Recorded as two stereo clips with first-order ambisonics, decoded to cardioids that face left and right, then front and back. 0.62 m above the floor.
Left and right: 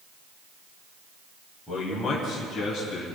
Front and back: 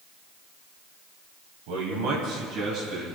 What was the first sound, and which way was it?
A man speaking, 175° left.